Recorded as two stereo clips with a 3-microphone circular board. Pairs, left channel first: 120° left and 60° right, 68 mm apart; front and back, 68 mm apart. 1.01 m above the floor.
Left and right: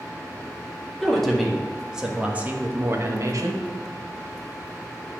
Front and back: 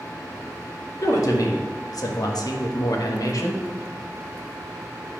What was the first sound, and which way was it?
A woman speaking, 35° left.